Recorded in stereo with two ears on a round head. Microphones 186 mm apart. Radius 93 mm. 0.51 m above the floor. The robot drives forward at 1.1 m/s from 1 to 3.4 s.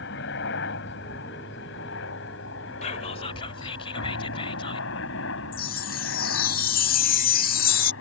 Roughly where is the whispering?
Left.